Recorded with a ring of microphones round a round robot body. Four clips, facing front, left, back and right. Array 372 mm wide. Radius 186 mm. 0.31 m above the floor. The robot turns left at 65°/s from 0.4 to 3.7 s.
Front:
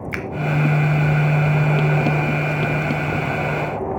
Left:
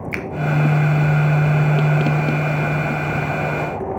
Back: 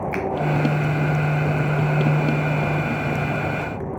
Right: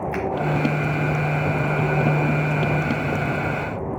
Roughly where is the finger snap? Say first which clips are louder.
Right 2 dB, back 3 dB; ahead left.